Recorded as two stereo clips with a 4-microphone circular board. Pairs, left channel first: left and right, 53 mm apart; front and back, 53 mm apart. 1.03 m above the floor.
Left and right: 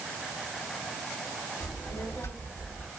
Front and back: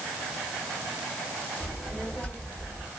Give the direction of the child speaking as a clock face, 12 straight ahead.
10 o'clock.